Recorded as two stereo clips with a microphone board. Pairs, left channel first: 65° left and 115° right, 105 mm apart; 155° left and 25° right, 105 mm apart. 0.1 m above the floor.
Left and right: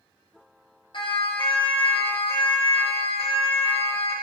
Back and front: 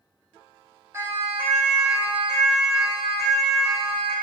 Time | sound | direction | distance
0.9 | a siren | 40° left | 4 m